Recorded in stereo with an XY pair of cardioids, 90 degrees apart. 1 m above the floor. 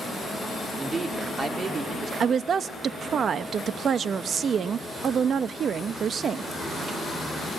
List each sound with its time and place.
0.8 s a man speaking: 35° right, 2.5 m; by 2.1 s 55° right, 2.5 m
2.2 s a woman speaking: 60° right, 0.8 m